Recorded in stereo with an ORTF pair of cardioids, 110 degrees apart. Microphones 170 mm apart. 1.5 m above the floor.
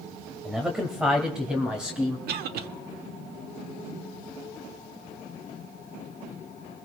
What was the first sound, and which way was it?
A man speaking, straight ahead.